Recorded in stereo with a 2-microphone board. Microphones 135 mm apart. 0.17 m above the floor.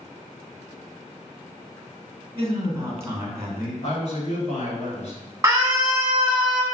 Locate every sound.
2.4 s a man speaking: 20° right (ahead or behind), 1.4 m
3.8 s a man speaking: 55° left (ahead or behind), 2.0 m
5.4 s a scream: 15° right (ahead or behind), 1.7 m